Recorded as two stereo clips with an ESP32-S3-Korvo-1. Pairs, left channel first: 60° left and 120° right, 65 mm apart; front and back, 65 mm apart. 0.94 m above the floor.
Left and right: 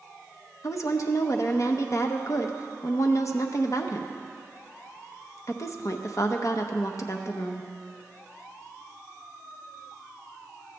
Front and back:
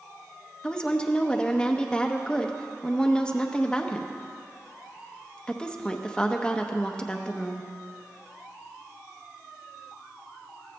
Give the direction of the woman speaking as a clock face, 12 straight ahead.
10 o'clock.